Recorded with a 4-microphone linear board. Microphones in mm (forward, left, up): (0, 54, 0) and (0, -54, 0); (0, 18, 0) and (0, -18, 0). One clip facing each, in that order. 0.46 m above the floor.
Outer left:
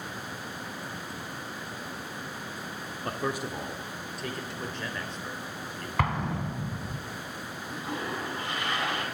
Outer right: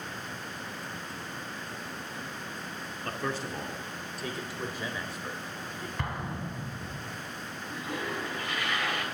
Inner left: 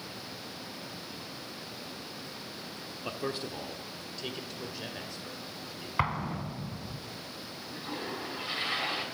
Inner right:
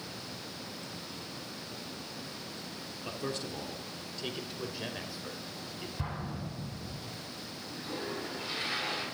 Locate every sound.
3.0 s a man speaking: 20° left (ahead or behind), 0.8 m; by 5.9 s 10° right (ahead or behind), 2.0 m
6.0 s an explosion: 90° left, 1.4 m
7.7 s a toilet flushing: 25° left (ahead or behind), 4 m